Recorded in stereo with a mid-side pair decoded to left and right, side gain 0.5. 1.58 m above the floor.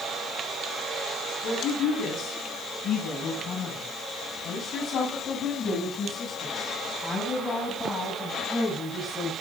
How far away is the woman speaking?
About 9.5 m.